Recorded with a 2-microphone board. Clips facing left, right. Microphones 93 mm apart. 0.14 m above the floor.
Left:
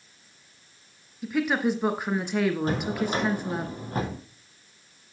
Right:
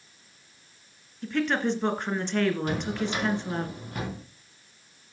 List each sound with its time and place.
1.2 s a woman speaking: 10° left (ahead or behind), 1.7 m
2.7 s a drawer: 35° left (ahead or behind), 3 m